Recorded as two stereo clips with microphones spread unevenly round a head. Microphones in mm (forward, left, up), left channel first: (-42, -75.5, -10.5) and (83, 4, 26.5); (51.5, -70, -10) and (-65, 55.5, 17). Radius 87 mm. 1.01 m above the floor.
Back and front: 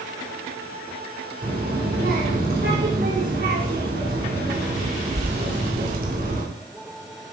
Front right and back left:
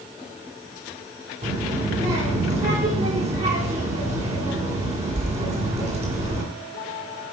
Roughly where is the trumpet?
I don't hear a trumpet.